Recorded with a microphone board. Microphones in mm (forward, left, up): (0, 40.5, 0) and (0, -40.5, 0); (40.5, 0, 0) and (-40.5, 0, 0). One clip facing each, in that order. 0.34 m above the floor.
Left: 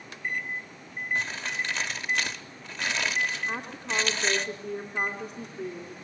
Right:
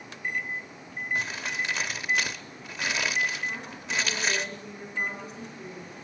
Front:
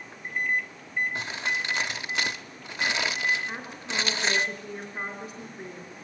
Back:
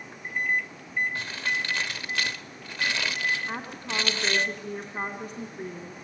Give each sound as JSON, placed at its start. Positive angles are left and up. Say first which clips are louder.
{"t": 1.1, "sound": "crumpling", "louder": "even, even", "azimuth_deg": -20, "distance_m": 0.9}
{"t": 3.5, "sound": "a woman speaking", "louder": "left 2 dB, back 2 dB", "azimuth_deg": 135, "distance_m": 3.0}